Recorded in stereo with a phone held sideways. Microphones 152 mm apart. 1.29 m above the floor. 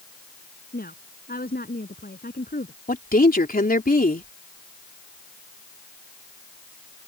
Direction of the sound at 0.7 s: 75° left (ahead or behind).